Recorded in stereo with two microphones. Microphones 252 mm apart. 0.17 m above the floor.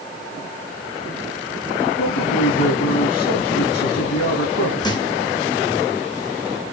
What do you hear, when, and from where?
2.0 s a man speaking: 80° left, 6 m
4.8 s a thud: 15° left (ahead or behind), 3 m